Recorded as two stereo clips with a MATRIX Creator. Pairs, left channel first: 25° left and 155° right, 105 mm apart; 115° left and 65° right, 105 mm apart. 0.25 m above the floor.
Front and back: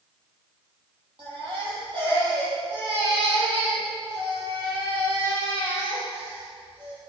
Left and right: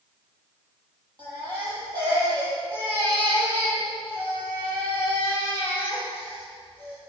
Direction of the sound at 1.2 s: 115° right.